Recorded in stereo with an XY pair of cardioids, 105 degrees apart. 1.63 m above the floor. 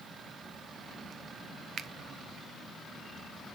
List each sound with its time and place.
1.8 s a finger snap: 50° right, 0.7 m